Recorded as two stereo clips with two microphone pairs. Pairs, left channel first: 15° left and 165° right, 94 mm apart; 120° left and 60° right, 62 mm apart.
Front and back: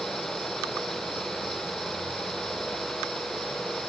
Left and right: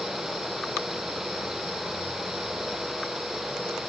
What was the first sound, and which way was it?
Only background noise.